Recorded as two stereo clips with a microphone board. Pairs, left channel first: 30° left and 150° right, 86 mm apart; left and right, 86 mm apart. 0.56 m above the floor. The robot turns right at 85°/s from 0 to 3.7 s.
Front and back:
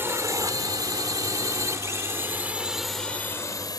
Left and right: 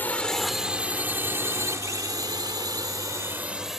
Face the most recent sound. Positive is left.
turn(degrees=-5)